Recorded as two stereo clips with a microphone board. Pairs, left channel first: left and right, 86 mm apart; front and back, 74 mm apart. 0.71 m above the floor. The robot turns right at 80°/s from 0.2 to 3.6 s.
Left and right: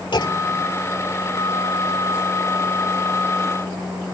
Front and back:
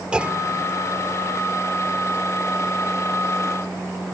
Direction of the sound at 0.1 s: 105° left.